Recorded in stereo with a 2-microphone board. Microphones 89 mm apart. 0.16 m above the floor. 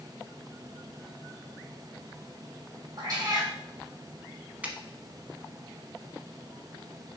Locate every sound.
3.0 s a cat meowing: 40° right (ahead or behind), 2.0 m
4.6 s a finger snap: 15° right (ahead or behind), 0.8 m